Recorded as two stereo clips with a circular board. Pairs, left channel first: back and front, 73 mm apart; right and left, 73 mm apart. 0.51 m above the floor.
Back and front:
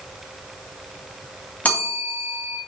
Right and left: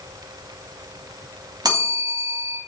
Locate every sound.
1.6 s a bell: 110° left, 3.5 m